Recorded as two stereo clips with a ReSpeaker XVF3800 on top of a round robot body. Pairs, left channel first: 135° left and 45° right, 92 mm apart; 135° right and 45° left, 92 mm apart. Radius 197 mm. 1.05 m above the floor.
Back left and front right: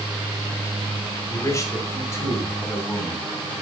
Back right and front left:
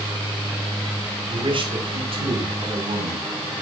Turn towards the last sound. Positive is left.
turn(degrees=65)